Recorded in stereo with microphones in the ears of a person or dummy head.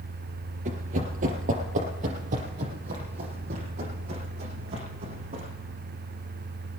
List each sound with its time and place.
0.7 s running footsteps: 40° right (ahead or behind), 2 m